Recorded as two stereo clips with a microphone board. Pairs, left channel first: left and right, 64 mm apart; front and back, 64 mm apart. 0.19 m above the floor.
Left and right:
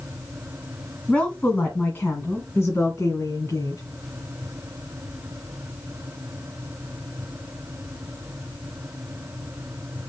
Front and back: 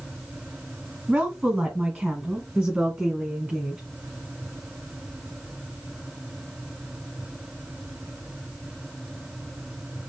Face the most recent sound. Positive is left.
turn(degrees=95)